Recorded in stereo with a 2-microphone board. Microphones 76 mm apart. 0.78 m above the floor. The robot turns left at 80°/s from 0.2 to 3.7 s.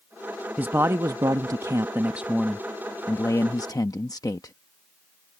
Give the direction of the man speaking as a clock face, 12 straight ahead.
1 o'clock.